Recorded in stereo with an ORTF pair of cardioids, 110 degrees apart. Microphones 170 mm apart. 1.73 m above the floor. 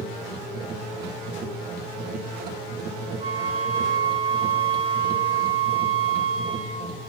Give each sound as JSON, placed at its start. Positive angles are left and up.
{"t": 0.0, "sound": "a machine running", "azimuth_deg": -70, "distance_m": 1.9}
{"t": 3.2, "sound": "a flute", "azimuth_deg": -40, "distance_m": 1.8}